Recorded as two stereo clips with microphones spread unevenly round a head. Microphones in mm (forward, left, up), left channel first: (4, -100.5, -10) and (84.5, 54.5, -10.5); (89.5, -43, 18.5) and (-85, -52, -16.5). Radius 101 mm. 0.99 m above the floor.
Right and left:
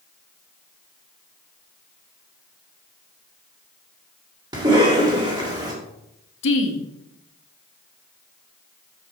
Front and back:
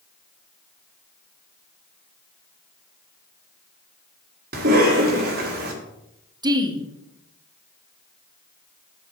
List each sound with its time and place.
4.5 s a cough: 135° left, 1.7 m
6.4 s a woman speaking: 110° right, 1.5 m